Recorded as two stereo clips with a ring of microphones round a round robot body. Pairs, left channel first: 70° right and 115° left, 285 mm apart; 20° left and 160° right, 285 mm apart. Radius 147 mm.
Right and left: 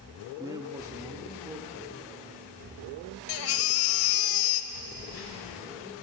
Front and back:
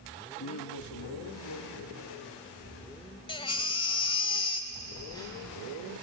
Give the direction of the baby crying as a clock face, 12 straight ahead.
2 o'clock.